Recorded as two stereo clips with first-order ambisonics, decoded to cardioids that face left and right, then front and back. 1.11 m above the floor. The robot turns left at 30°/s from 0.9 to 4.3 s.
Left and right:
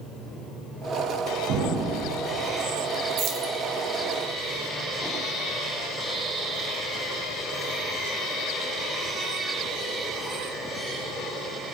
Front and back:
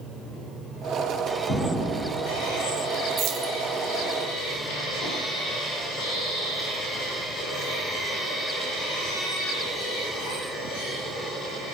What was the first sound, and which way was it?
An explosion, 60° right.